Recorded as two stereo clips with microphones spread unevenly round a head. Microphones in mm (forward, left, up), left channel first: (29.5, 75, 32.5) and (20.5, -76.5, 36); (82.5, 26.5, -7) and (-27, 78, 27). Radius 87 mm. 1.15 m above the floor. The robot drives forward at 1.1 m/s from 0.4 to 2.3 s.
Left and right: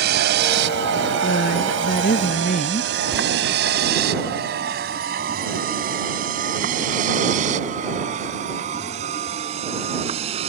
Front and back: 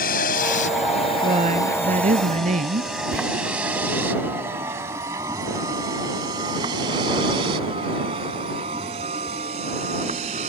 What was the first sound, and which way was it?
A vehicle, 70° right.